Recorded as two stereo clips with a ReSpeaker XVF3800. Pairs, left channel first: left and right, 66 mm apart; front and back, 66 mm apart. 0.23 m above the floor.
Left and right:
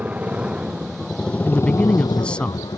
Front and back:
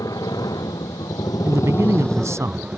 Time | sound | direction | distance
0.0 | a motorcycle | 25° right | ?
1.4 | a man speaking | 160° left | ?